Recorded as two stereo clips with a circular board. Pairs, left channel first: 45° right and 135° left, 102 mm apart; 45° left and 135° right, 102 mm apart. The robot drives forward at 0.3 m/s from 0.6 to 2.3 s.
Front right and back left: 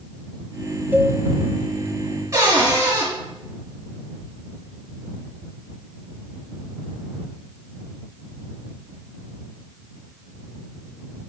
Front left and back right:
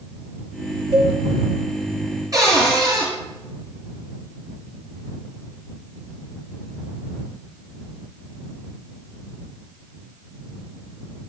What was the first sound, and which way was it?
A cowbell, 155° right.